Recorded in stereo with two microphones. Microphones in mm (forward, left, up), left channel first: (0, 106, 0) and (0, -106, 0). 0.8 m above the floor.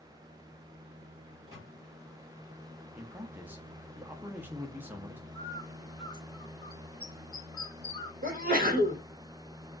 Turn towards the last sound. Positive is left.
turn(degrees=-45)  # may be behind; listen again after turning